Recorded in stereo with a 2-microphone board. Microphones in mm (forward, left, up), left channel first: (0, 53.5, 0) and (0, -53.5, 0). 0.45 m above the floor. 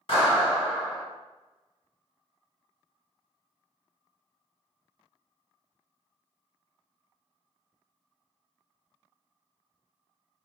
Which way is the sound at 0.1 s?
55° left (ahead or behind).